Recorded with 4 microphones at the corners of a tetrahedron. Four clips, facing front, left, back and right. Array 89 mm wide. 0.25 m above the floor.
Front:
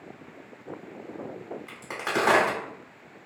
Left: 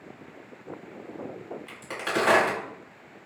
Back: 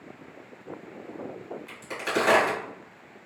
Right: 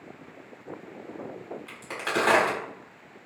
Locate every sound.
1.7 s a crack: 15° right, 1.5 m